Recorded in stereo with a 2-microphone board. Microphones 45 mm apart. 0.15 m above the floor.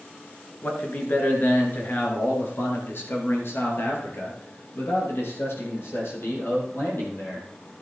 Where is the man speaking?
45° left (ahead or behind), 2.5 m; by 7.5 s 70° left (ahead or behind), 5.5 m.